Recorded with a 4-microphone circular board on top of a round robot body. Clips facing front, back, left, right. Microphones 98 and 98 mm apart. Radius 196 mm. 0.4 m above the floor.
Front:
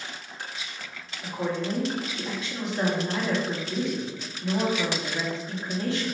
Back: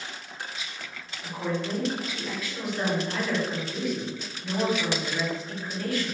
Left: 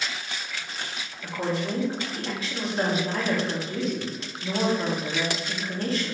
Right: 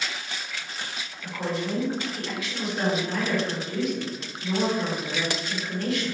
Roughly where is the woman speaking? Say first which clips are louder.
Front 1 dB, left 1 dB; ahead left.